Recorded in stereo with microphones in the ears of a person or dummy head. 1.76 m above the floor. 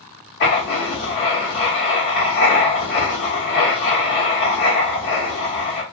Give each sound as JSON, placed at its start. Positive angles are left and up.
{"t": 0.4, "sound": "writing", "side_deg": 60, "distance_m": 0.9}